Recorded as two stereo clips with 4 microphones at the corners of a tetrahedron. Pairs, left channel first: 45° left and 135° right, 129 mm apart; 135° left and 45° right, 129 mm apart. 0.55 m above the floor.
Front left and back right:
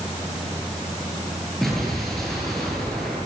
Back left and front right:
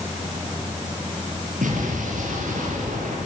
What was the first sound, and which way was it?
An explosion, 45° right.